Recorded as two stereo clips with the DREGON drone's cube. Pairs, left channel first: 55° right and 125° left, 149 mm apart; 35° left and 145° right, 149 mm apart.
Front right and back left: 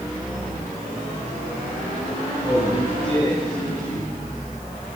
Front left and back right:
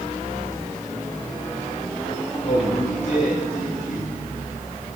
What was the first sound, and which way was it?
A man speaking, 5° right.